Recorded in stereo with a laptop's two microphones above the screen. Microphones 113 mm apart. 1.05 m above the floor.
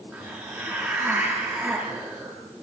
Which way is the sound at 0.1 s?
20° right (ahead or behind).